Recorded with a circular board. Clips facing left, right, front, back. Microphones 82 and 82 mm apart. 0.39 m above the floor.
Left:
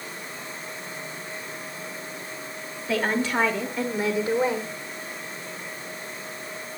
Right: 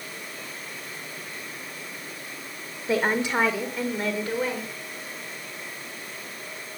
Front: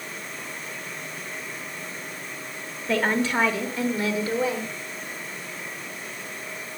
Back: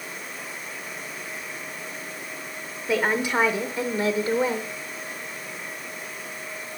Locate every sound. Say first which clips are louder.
2.9 s a woman speaking: right 1 dB, even; 110° right, 1.0 m; by 4.7 s 140° left, 1.2 m